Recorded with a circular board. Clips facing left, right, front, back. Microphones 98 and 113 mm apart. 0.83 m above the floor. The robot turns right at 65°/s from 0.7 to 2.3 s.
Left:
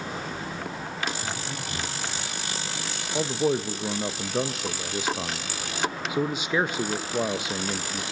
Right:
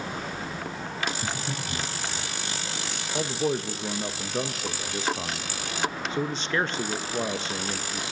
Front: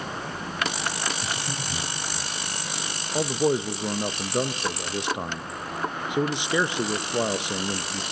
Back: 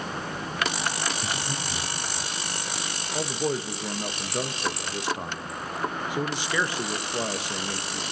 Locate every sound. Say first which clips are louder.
1.2 s breathing: right 1 dB, even; 80° right, 6.5 m; by 1.9 s 35° right, 6.5 m
3.1 s a man speaking: left 3 dB, front 5 dB; 30° left, 0.5 m